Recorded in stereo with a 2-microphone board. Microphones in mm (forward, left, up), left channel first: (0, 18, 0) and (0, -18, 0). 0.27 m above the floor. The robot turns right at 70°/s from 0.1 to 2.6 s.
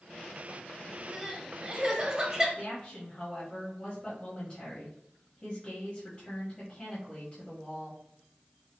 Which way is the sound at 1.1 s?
20° right (ahead or behind).